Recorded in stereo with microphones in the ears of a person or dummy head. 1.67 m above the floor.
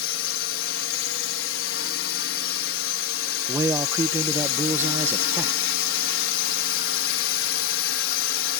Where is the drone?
75° left (ahead or behind).